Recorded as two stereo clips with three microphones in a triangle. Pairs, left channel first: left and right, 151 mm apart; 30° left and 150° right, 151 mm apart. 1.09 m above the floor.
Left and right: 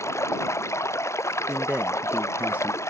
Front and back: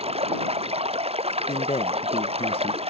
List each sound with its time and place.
0.0 s running water: 160° left
1.5 s a man speaking: 15° right